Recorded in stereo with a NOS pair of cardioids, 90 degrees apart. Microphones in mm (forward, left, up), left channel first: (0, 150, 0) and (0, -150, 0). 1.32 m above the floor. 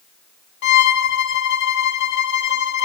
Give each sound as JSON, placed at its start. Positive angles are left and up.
{"t": 0.6, "sound": "a violin", "azimuth_deg": 65, "distance_m": 0.7}